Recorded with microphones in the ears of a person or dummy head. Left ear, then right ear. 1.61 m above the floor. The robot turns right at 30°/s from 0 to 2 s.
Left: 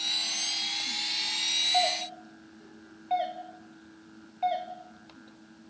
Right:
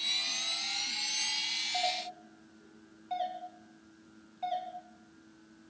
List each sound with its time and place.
1.7 s a doorbell: 30° left (ahead or behind), 3 m; by 4.7 s 20° left (ahead or behind), 3 m